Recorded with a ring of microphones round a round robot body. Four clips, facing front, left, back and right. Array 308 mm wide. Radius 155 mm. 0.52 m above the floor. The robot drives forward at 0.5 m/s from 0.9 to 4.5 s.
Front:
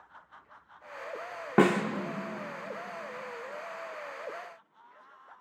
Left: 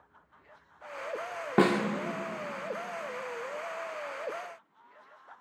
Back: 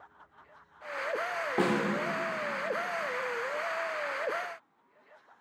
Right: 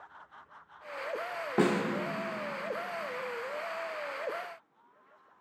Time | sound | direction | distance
1.6 | a snare drum | 30° left | 1.0 m